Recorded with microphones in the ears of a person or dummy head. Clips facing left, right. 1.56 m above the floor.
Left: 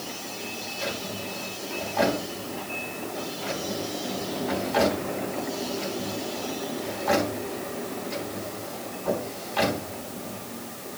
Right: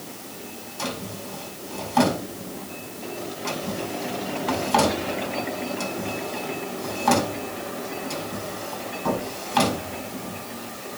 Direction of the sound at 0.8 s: 85° right.